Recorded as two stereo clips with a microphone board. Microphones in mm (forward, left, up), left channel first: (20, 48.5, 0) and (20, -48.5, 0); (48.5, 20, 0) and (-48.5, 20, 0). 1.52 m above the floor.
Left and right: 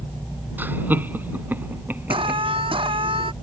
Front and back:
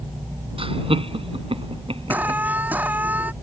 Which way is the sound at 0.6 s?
160° right.